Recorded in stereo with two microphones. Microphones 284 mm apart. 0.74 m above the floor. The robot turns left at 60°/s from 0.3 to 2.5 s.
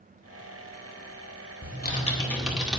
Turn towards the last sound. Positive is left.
turn(degrees=-5)